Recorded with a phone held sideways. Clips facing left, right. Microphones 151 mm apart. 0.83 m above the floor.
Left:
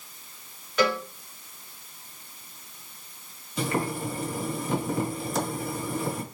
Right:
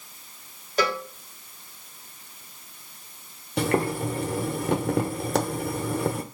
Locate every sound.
0.8 s a cowbell: 35° right (ahead or behind), 1.6 m
3.6 s boiling: 70° right (ahead or behind), 0.8 m